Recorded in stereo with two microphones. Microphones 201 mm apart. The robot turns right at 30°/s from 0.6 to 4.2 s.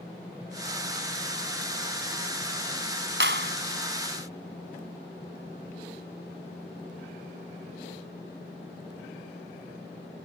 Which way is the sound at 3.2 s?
65° right (ahead or behind).